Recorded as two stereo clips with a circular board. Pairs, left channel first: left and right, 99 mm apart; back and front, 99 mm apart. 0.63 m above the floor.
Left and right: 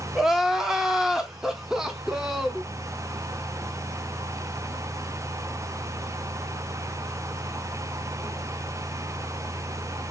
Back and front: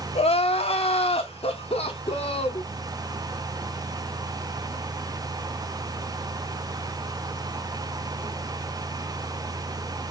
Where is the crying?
175° right, 0.6 m.